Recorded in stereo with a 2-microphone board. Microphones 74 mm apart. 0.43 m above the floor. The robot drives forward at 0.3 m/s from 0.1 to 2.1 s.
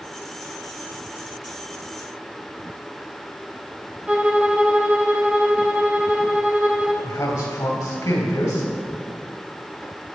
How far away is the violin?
About 0.9 m.